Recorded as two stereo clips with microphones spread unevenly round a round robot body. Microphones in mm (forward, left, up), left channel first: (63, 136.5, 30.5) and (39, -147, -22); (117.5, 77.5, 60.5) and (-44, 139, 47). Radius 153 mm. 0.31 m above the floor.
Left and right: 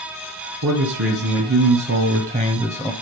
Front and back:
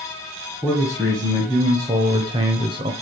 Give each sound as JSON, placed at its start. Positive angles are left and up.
{"t": 0.6, "sound": "a man speaking", "azimuth_deg": -125, "distance_m": 3.0}